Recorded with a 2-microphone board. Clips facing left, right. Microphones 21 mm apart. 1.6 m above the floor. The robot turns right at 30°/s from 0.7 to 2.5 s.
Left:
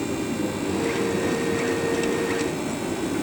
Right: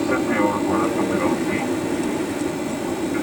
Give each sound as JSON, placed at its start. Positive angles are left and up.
{"t": 0.0, "sound": "an aircraft", "azimuth_deg": -85}